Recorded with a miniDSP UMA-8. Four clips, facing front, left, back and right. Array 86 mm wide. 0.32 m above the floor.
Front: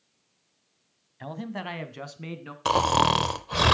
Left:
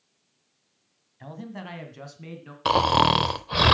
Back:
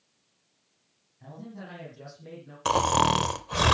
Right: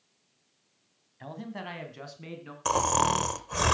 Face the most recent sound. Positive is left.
turn(degrees=75)